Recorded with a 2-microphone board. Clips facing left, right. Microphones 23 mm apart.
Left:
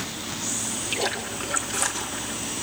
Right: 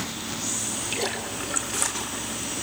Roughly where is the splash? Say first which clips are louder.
Left 3 dB; centre.